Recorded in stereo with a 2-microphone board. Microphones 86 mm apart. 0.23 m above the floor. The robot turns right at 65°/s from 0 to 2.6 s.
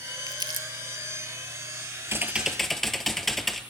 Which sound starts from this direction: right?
Crumpling, at 0.3 s.